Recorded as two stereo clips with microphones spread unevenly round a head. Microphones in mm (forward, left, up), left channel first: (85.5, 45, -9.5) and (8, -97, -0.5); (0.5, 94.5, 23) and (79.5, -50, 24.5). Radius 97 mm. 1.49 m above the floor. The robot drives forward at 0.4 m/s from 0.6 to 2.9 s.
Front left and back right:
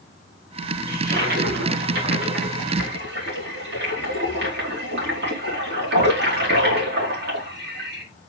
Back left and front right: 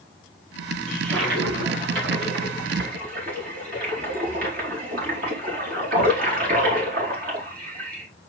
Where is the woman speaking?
No woman speaking in this recording.